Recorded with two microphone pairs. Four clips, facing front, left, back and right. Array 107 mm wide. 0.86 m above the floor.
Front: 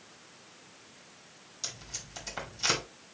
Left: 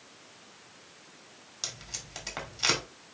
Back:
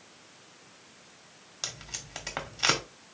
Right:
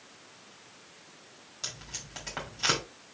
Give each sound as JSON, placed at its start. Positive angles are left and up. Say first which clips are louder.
{"t": 1.6, "sound": "tape being pulled", "louder": "even, back 3 dB", "azimuth_deg": 165, "distance_m": 1.8}